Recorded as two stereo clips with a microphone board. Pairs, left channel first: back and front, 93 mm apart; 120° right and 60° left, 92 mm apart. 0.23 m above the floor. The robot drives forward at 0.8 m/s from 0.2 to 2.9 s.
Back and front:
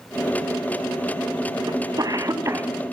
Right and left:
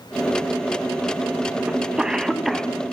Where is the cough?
15° right, 2 m; by 2.7 s 30° right, 1.5 m.